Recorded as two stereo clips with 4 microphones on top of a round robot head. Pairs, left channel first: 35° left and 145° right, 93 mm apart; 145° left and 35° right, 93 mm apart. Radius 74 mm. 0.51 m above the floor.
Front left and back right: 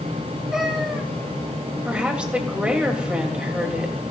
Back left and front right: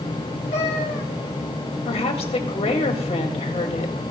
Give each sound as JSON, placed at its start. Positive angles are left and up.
{"t": 0.5, "sound": "a cat meowing", "azimuth_deg": 130, "distance_m": 1.9}
{"t": 1.9, "sound": "a woman speaking", "azimuth_deg": 135, "distance_m": 2.5}